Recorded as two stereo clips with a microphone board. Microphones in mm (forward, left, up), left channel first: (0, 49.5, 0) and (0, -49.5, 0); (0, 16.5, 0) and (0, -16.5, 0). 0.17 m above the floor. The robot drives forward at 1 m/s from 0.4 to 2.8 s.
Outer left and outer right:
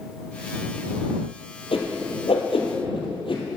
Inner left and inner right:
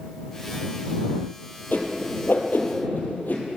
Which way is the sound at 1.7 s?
70° left (ahead or behind).